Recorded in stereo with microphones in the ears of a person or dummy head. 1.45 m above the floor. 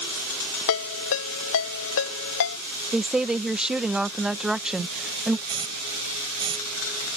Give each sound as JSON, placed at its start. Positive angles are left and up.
{"t": 0.7, "sound": "a ringtone", "side_deg": 65}
{"t": 2.9, "sound": "a woman speaking", "side_deg": -10}
{"t": 5.5, "sound": "a hiss", "side_deg": -35}